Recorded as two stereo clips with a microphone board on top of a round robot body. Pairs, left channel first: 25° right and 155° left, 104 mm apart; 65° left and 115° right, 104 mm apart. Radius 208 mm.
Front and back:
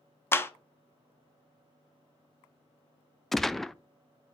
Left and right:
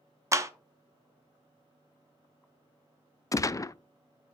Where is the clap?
75° right, 1.0 m.